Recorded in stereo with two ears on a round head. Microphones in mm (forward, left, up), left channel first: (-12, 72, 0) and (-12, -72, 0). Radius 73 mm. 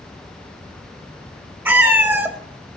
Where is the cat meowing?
15° right (ahead or behind), 0.5 m.